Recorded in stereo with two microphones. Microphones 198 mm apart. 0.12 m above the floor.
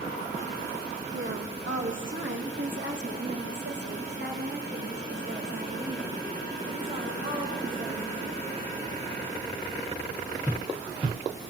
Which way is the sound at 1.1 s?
75° right (ahead or behind).